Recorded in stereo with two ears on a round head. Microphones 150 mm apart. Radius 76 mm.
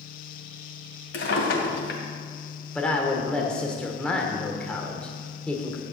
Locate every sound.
1.1 s a drawer: 75° left (ahead or behind), 2 m
2.8 s a woman speaking: 5° left (ahead or behind), 1.4 m